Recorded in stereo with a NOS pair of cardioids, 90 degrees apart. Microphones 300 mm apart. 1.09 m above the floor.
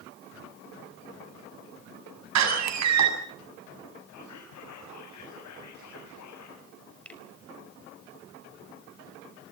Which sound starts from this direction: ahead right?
A door slam, at 2.4 s.